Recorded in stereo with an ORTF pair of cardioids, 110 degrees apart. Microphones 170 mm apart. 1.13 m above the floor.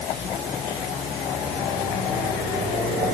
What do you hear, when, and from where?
Only background noise.